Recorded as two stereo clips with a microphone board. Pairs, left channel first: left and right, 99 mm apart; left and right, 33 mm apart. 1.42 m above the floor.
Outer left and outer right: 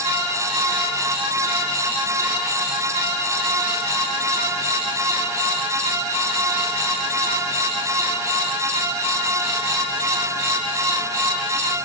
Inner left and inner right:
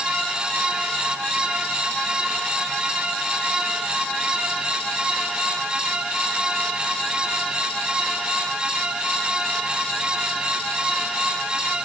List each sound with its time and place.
Only background noise.